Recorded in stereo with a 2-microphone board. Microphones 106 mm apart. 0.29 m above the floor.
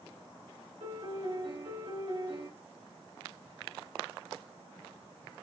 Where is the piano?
70° right (ahead or behind), 3 m.